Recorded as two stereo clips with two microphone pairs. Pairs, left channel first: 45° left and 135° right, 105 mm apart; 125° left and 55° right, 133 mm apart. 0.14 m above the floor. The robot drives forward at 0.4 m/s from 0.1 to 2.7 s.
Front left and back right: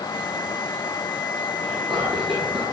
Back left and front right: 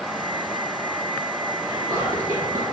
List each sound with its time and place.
1.6 s whispering: 105° right, 2 m; by 2.7 s 120° right, 2.5 m